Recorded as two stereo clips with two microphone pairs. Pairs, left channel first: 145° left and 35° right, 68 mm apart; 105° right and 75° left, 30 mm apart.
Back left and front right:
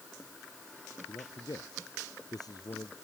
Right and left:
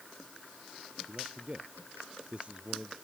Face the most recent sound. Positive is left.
turn(degrees=125)